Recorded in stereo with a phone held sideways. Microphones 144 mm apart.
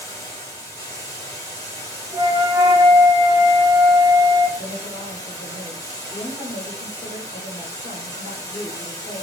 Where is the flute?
30° right (ahead or behind), 0.6 m.